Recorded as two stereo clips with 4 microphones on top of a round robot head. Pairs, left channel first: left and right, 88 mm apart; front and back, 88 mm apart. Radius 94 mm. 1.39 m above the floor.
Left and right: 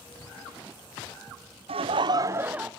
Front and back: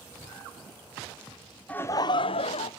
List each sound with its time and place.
1.7 s laughter: 80° right, 0.6 m; by 2.7 s 10° right, 0.9 m